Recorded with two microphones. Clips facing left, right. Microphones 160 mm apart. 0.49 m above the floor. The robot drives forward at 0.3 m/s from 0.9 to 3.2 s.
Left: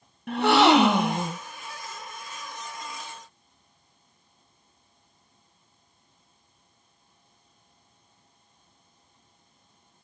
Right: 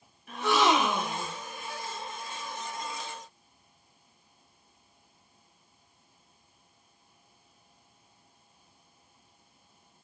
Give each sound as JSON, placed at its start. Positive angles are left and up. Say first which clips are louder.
{"t": 0.3, "sound": "a gasp", "louder": "left 7 dB", "side_deg": 70, "distance_m": 0.6}